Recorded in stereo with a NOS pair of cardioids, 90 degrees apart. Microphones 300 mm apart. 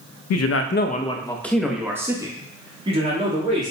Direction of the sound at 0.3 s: 70° left.